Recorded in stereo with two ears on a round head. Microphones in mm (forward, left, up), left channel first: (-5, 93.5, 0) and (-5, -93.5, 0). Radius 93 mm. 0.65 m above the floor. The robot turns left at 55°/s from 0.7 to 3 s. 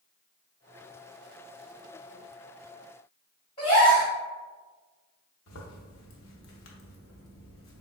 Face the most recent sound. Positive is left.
turn(degrees=80)